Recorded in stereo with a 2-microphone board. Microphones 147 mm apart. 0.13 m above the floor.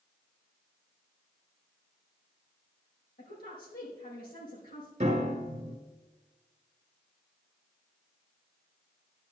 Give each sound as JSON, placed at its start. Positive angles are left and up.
{"t": 3.2, "sound": "a woman speaking", "side_deg": 75, "distance_m": 5.5}
{"t": 5.0, "sound": "a piano", "side_deg": -40, "distance_m": 2.0}